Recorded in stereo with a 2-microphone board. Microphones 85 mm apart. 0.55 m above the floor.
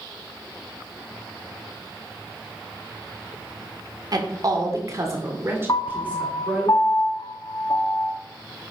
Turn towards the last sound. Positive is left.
turn(degrees=55)  # may be behind; listen again after turning